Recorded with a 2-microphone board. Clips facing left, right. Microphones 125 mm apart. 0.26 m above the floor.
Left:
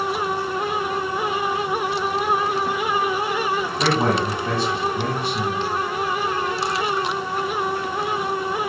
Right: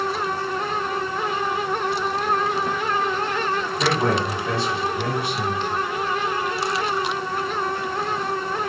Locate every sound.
3.8 s a man speaking: 30° left (ahead or behind), 1.4 m